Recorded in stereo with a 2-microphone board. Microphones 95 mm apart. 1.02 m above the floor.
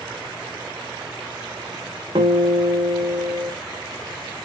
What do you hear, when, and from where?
2.1 s a guitar: 70° right (ahead or behind), 1.3 m